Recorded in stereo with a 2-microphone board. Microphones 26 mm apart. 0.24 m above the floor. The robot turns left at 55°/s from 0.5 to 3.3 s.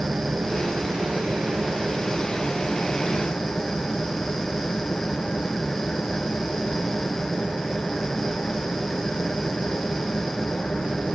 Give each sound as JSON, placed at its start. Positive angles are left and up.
{"t": 0.0, "sound": "an engine running", "azimuth_deg": -60, "distance_m": 2.5}